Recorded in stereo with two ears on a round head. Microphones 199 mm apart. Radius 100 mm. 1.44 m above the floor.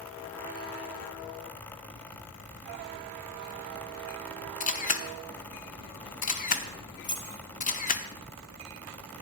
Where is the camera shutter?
35° left (ahead or behind), 1.1 m.